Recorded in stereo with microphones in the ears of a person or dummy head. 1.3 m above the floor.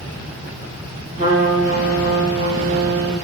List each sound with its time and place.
1.2 s a trumpet: 45° right (ahead or behind), 5 m